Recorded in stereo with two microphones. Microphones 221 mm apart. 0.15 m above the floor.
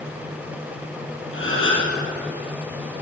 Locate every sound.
1.3 s a gasp: 70° left (ahead or behind), 5.5 m